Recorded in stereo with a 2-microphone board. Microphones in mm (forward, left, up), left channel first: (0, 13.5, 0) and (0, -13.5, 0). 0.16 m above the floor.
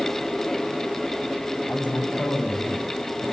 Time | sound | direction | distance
1.7 | a man speaking | 65° left (ahead or behind) | 9.5 m